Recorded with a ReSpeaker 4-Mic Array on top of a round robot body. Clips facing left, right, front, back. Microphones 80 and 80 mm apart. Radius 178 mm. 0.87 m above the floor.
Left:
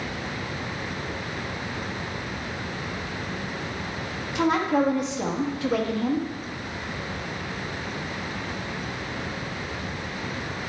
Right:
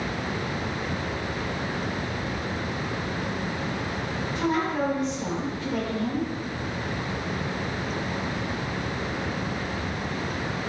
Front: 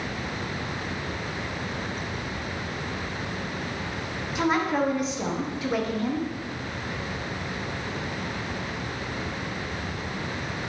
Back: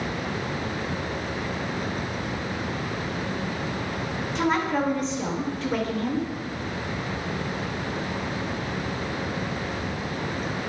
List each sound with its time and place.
4.3 s a woman speaking: 85° left, 1.3 m